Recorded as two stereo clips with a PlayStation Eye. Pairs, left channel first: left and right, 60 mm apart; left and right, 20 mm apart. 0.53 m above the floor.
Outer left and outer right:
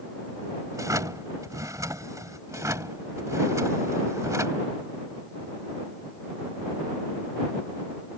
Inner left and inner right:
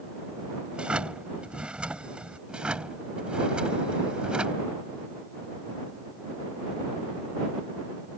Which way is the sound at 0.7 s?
70° right (ahead or behind).